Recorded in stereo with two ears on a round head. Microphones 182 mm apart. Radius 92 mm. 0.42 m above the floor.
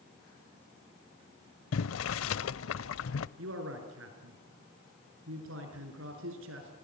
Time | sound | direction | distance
1.7 | boiling | 70° left (ahead or behind) | 0.6 m
3.4 | a man speaking | 70° right (ahead or behind) | 5.5 m